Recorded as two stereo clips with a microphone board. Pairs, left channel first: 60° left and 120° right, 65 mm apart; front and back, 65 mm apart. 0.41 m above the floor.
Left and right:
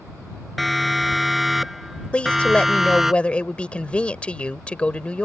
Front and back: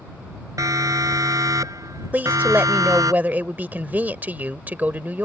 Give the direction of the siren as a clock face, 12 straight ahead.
7 o'clock.